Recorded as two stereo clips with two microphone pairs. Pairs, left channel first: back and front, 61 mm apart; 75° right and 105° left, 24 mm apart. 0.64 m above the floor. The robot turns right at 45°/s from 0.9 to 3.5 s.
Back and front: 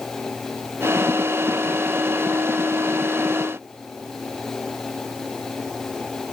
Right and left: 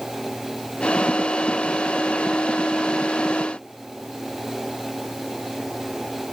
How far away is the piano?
I don't hear a piano.